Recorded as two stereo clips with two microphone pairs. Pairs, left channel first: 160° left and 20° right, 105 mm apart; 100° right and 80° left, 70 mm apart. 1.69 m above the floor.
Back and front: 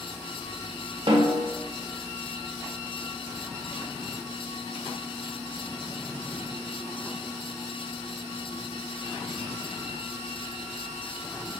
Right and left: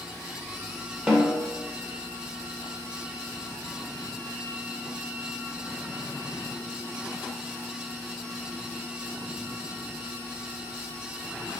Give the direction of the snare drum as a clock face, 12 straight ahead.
12 o'clock.